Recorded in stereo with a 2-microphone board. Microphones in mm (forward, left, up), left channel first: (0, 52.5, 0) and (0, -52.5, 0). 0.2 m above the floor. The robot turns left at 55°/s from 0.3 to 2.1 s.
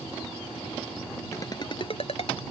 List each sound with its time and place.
1.3 s a ringtone: 25° left (ahead or behind); by 2.4 s 65° left (ahead or behind)